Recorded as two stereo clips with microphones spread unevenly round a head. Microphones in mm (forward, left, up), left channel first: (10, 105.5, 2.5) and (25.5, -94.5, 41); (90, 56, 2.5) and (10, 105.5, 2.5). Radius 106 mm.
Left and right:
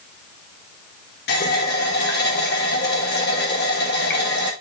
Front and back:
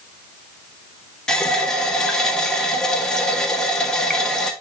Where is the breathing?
No breathing in this recording.